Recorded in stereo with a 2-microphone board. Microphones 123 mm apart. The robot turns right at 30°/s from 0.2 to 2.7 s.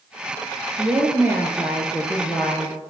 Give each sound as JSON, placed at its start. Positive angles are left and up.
{"t": 0.8, "sound": "a woman speaking", "azimuth_deg": -30, "distance_m": 3.0}